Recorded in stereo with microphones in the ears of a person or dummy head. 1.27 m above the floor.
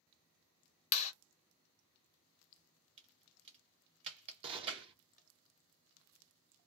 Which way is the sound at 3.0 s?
30° right (ahead or behind).